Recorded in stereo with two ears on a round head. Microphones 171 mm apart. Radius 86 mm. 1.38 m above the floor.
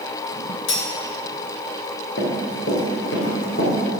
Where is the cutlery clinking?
70° left (ahead or behind), 1.3 m.